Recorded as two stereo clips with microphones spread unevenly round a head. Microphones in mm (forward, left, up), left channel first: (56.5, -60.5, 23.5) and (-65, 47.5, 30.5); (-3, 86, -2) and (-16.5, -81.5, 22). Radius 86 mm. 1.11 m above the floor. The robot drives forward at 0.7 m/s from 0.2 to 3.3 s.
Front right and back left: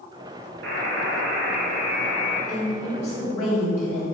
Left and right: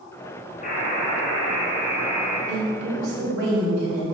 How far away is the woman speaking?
About 3 m.